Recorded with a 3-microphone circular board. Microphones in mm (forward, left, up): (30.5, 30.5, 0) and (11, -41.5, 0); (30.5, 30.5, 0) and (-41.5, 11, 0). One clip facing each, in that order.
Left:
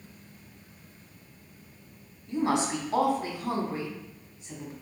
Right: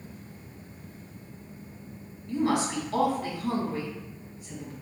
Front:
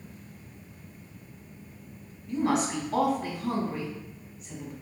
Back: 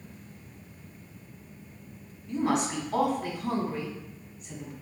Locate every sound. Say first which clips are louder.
2.3 s a woman speaking: even, front 1 dB; 105° left, 1.0 m